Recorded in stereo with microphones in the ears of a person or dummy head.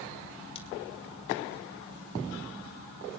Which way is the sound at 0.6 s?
35° left (ahead or behind).